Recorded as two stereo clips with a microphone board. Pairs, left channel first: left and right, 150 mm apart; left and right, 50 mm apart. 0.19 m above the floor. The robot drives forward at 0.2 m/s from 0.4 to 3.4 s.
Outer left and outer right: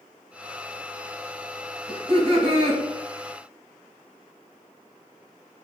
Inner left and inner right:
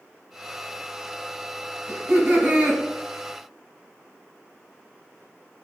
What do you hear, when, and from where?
1.9 s laughter: 40° right (ahead or behind), 2 m